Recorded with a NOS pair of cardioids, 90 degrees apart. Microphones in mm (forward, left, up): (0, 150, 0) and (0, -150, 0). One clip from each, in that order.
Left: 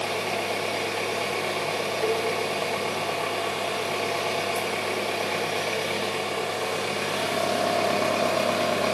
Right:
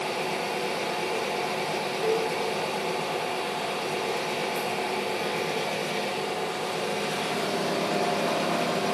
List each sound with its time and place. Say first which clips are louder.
0.0 s an engine running: left 2 dB; 40° left, 0.9 m
2.0 s a cowbell: right 1 dB; 45° left, 0.6 m